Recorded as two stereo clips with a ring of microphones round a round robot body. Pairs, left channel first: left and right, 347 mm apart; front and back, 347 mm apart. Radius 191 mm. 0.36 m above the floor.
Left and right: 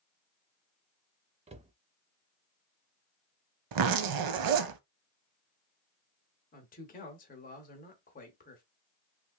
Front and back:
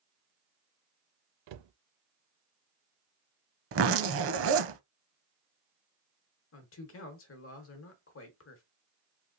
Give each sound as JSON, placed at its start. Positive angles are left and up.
{"t": 1.5, "sound": "a cupboard door", "azimuth_deg": -165, "distance_m": 0.5}
{"t": 3.7, "sound": "a zipper", "azimuth_deg": -125, "distance_m": 0.6}
{"t": 6.5, "sound": "a man speaking", "azimuth_deg": 35, "distance_m": 1.0}